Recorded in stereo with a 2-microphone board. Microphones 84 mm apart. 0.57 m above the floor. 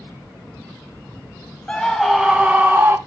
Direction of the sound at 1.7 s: 15° left (ahead or behind).